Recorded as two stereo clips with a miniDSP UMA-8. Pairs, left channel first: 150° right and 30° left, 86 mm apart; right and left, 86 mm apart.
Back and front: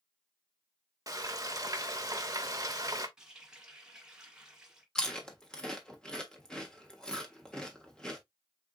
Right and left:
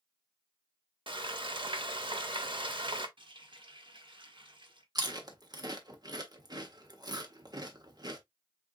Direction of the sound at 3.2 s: 110° left.